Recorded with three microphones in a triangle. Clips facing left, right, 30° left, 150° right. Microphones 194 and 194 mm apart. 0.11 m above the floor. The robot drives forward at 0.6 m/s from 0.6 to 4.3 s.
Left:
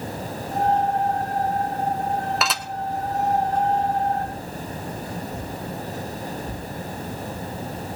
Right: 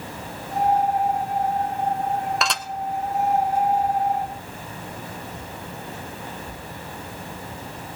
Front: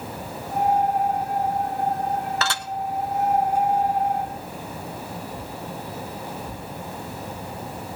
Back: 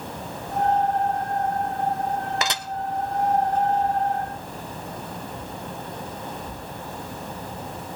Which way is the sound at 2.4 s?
175° left.